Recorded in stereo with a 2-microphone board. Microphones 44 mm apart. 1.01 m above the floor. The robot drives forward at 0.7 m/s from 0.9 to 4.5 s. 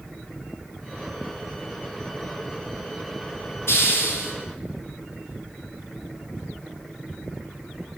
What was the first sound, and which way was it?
A hiss, 70° left (ahead or behind).